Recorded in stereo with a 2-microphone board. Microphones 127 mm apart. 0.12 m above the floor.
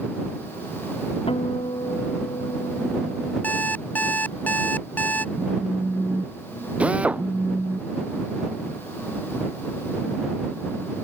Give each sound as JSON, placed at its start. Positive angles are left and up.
{"t": 1.3, "sound": "a guitar", "side_deg": 50}
{"t": 3.4, "sound": "an alarm clock", "side_deg": 15}
{"t": 5.3, "sound": "a phone buzzing", "side_deg": -10}
{"t": 6.8, "sound": "a drill", "side_deg": -10}